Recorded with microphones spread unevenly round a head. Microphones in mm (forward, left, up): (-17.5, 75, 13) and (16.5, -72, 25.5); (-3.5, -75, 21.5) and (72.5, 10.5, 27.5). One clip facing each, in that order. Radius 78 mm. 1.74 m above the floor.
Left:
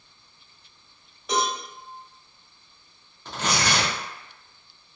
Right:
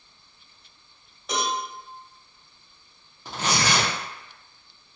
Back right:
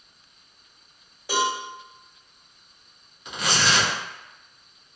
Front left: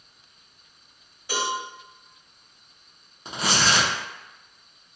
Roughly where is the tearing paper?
Ahead.